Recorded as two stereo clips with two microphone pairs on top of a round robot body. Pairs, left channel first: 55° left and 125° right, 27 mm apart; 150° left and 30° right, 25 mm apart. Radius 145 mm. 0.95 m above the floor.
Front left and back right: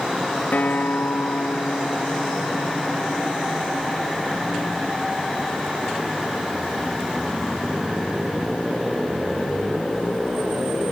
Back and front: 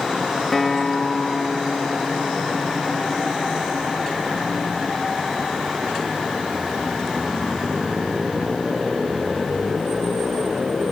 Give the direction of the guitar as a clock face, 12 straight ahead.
10 o'clock.